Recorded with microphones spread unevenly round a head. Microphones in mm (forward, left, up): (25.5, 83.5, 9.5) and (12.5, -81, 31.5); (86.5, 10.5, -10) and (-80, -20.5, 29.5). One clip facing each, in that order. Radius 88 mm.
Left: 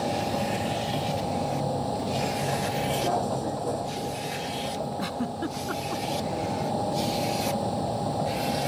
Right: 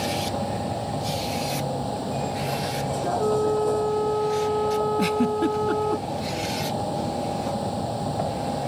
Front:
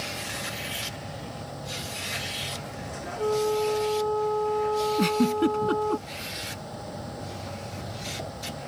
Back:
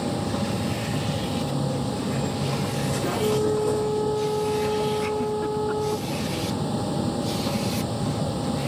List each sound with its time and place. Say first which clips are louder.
0.0 s a vehicle: even, back 11 dB; 175° left
3.2 s a flute: right 8 dB, back 1 dB; 90° right
5.0 s a giggle: right 8 dB, front 2 dB; 35° right